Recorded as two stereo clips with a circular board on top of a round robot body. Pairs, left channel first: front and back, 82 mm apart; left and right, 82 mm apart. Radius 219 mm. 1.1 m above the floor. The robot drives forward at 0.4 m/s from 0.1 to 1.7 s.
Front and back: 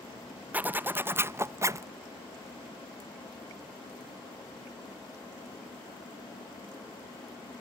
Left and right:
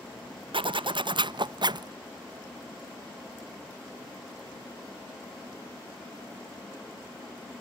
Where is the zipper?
110° right; by 1.9 s 125° right.